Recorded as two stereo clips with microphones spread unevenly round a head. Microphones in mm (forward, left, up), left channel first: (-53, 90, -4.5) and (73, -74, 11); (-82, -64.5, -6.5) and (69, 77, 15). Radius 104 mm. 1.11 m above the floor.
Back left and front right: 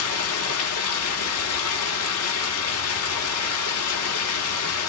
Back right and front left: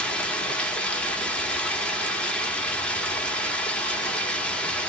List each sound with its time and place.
0.0 s running water: 135° left, 1.3 m